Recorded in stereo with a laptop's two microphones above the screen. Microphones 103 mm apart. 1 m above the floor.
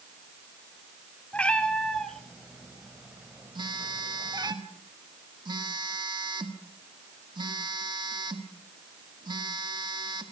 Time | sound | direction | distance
1.3 | a cat meowing | 15° left (ahead or behind) | 2 m
3.5 | a phone buzzing | 45° right (ahead or behind) | 2.0 m